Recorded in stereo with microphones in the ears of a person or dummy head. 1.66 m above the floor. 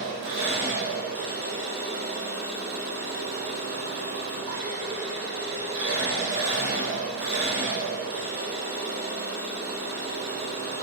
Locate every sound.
0.0 s an engine running: 50° right (ahead or behind), 1.1 m